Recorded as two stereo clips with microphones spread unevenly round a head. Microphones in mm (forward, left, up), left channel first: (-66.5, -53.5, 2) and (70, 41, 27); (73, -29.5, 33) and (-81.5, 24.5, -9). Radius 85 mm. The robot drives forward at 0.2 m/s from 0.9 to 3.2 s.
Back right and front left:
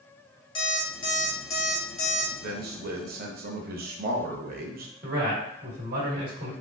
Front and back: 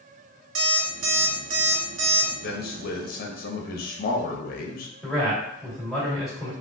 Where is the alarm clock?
150° left, 0.9 m; by 2.3 s 155° left, 1.2 m.